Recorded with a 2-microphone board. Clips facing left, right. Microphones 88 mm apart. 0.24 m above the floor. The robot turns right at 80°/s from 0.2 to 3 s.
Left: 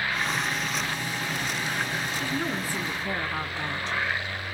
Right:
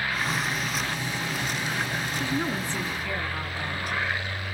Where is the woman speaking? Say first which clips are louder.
Right 3 dB; 30° right, 1.9 m; by 4.0 s 30° left, 1.9 m.